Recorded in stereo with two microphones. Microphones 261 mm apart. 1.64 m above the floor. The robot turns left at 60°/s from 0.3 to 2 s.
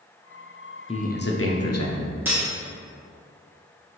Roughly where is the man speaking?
Behind.